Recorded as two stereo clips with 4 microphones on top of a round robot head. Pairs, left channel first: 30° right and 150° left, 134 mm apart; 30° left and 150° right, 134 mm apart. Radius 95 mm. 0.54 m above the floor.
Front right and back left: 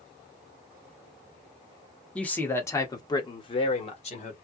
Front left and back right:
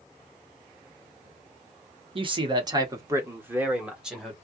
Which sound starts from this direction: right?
A man speaking, at 2.1 s.